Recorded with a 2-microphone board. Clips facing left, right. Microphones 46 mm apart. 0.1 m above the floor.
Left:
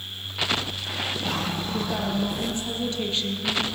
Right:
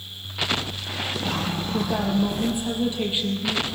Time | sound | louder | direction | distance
1.7 | a woman speaking | right 5 dB | 10° right (ahead or behind) | 2.5 m